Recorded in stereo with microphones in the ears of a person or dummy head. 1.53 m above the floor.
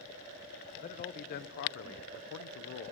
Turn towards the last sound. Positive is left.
turn(degrees=60)  # may be behind; listen again after turning